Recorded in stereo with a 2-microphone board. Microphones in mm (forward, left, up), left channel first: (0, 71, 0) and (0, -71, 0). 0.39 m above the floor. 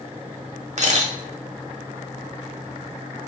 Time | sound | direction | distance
0.8 | a camera shutter | 50° right (ahead or behind) | 1.0 m